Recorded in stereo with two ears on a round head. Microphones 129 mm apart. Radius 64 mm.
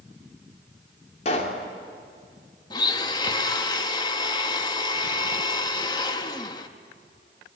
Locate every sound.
1.2 s a pop: 50° left (ahead or behind), 2.5 m
2.7 s a blender: 30° left (ahead or behind), 1.1 m